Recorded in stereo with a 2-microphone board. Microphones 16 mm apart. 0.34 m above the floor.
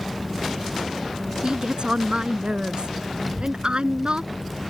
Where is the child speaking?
Centre (ahead or behind).